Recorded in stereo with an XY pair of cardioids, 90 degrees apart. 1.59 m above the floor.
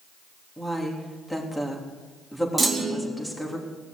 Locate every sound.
0.6 s a woman speaking: 10° left, 3.5 m
2.6 s a clunk: 25° right, 2.5 m